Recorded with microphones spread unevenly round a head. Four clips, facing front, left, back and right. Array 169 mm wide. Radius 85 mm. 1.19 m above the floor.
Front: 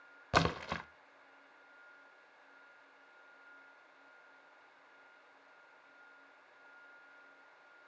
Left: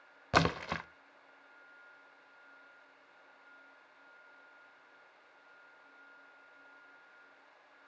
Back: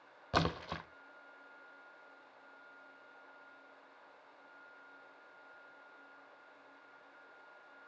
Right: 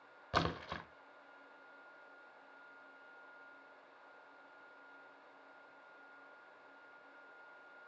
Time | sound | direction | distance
0.3 | a splash | 75° left | 1.0 m